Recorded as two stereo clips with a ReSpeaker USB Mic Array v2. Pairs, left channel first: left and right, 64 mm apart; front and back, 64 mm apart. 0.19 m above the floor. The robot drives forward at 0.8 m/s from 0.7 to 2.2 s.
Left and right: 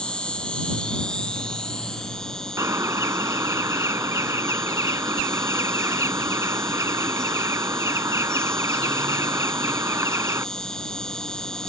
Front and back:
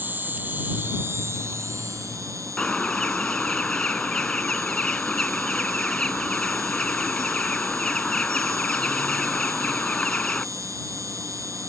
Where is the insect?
155° left; by 11.7 s 170° left.